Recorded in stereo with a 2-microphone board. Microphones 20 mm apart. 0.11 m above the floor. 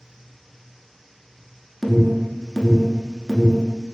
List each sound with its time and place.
1.8 s an alarm: 15° left (ahead or behind), 0.9 m